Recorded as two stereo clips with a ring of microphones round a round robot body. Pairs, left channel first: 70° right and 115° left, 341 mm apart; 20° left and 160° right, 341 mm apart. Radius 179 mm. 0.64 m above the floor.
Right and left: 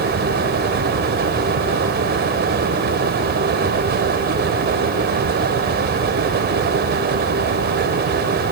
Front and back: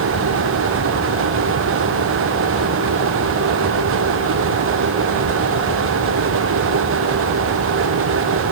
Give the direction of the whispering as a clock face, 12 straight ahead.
I don't hear whispering.